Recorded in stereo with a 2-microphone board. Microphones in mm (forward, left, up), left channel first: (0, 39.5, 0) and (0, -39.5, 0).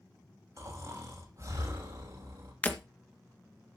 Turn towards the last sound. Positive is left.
turn(degrees=20)  # may be behind; listen again after turning